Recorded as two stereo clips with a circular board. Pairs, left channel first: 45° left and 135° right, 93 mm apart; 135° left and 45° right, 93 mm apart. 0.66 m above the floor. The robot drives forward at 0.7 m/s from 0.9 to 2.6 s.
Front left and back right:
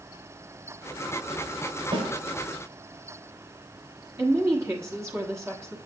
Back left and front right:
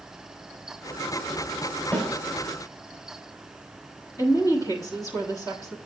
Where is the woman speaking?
175° left, 1.2 m.